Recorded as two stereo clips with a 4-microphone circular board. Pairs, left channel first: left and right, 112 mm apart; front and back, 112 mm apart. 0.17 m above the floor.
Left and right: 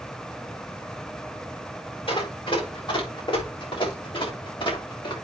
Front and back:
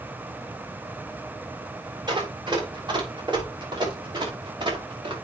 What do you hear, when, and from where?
2.1 s running footsteps: 130° left, 6.5 m